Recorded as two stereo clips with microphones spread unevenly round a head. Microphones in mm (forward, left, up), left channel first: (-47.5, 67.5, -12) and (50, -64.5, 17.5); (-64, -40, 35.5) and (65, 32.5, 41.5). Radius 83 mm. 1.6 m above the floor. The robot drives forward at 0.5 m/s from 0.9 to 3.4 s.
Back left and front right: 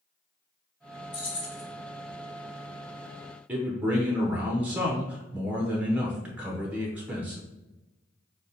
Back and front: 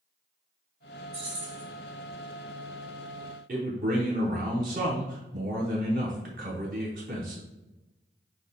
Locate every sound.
1.1 s keys jangling: 65° left, 1.1 m; by 1.6 s 80° left, 1.1 m
3.5 s a man speaking: 15° left, 0.6 m